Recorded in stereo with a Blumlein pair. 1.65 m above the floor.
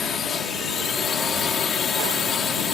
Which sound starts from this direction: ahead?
A drone, at 0.0 s.